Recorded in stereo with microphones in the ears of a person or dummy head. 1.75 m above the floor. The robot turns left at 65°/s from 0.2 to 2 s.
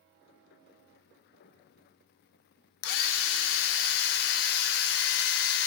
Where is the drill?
70° left (ahead or behind), 0.7 m.